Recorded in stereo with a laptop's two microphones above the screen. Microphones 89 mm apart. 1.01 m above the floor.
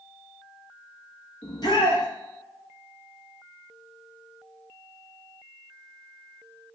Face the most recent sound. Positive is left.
turn(degrees=50)  # may be behind; listen again after turning